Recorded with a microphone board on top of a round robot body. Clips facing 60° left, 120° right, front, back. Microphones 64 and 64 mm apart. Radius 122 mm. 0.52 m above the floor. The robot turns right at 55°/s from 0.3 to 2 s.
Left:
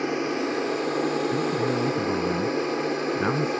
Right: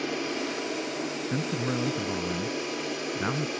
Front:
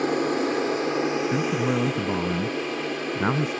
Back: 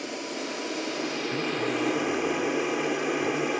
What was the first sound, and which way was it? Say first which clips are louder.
An aircraft: left 5 dB, front 10 dB; 5° left.